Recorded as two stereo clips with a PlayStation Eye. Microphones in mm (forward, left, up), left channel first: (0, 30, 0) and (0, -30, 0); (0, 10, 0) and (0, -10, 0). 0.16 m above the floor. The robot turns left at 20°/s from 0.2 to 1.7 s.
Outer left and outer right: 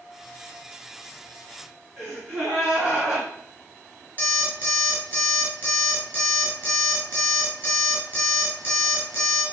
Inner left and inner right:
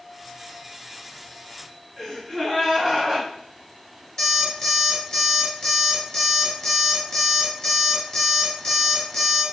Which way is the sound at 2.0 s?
10° right (ahead or behind).